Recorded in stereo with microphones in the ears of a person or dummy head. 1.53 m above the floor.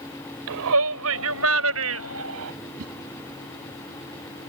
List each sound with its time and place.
0.5 s a shout: 85° right
2.8 s a whoosh: 50° right (ahead or behind)